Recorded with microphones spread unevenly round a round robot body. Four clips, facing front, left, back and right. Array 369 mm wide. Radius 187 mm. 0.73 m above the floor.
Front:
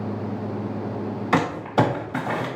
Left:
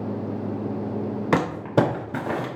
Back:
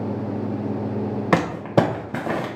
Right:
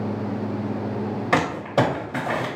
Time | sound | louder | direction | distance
1.3 | crumpling | even, back 1 dB | 160° left | 0.8 m